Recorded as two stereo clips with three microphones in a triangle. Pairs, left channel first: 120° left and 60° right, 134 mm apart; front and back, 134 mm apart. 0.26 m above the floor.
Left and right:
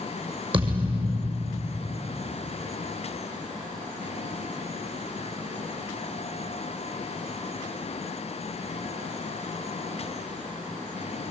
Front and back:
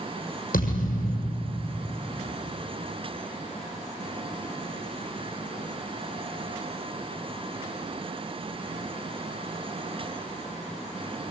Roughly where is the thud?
Ahead.